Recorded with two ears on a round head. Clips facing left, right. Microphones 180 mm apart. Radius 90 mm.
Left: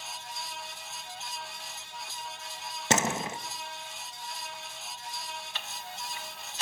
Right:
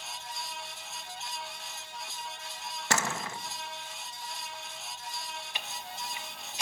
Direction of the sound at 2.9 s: 20° left (ahead or behind).